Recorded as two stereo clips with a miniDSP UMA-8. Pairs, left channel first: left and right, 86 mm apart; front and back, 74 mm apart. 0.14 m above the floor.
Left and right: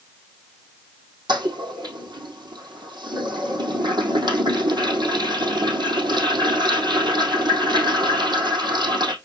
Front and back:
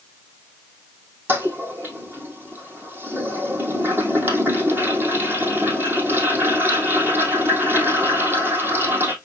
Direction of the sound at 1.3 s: 120° right.